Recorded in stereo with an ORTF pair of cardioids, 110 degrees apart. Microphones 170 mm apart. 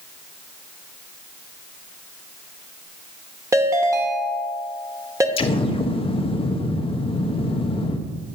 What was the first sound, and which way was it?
A ringtone, 20° right.